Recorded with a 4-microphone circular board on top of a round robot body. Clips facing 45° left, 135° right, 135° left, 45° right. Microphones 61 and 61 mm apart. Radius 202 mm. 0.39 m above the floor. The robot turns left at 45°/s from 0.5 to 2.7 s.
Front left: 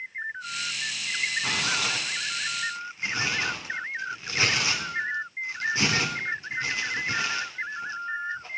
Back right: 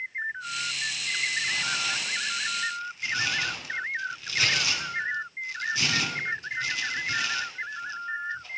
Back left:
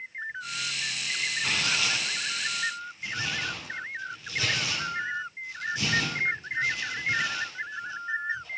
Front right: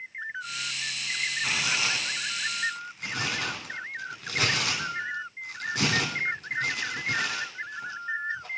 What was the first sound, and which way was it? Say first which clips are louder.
Tearing paper: front left 1 dB, even; 40° left.